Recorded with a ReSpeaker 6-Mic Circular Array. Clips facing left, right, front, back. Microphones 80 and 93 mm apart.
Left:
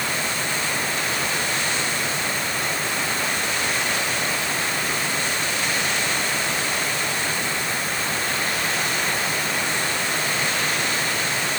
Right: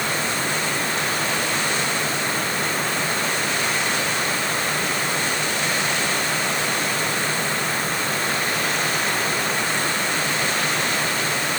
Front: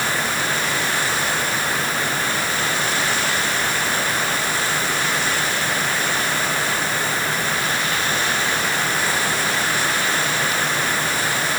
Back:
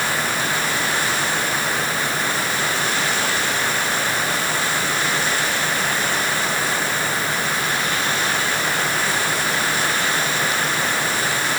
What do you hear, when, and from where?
Only background noise.